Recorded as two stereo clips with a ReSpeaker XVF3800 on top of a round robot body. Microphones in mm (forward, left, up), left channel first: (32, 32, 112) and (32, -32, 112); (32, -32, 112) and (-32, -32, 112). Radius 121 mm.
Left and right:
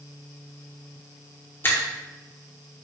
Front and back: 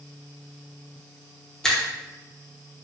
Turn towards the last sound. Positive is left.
turn(degrees=75)